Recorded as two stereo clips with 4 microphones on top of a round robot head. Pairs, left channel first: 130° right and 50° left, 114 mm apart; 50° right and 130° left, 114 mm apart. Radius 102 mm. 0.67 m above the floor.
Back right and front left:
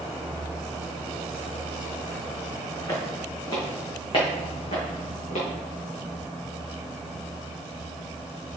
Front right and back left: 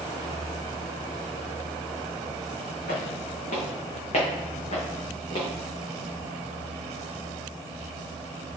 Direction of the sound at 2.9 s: 65° right.